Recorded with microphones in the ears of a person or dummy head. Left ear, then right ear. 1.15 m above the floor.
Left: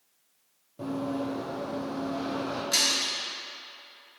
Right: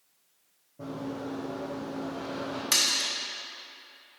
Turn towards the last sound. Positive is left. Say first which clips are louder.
# even
turn(degrees=-35)  # may be behind; listen again after turning